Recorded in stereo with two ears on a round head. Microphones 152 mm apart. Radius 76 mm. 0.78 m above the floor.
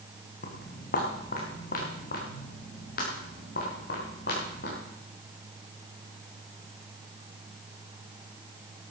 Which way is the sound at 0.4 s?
50° left (ahead or behind).